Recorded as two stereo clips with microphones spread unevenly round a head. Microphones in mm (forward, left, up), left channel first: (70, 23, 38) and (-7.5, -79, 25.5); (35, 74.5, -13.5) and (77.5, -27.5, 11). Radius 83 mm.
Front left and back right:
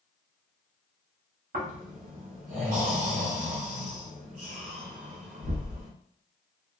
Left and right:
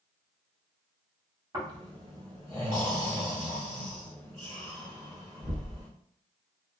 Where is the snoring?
125° right, 1.1 m.